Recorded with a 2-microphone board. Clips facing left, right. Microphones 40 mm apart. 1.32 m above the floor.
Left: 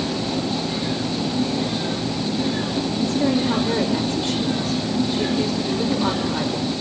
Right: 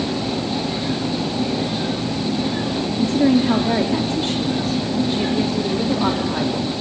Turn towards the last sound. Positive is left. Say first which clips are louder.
# right 5 dB
turn(degrees=-50)  # may be behind; listen again after turning